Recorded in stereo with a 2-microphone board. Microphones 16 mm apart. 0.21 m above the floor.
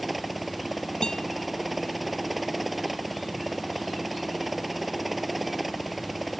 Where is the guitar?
70° left (ahead or behind).